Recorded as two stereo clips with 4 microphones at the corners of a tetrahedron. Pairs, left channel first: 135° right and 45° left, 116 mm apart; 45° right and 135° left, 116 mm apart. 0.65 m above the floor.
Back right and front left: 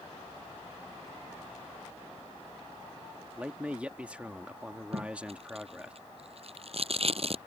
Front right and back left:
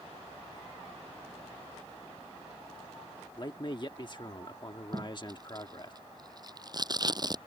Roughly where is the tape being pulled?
Left.